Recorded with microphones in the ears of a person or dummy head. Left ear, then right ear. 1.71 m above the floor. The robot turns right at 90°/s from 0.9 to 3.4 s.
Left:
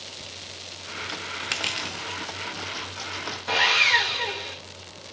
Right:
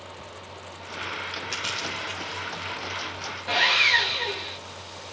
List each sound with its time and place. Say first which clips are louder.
1.5 s crushing: left 2 dB; 25° left (ahead or behind), 0.9 m; by 2.7 s 20° right (ahead or behind), 0.9 m
3.5 s sawing: even; 5° left (ahead or behind), 3 m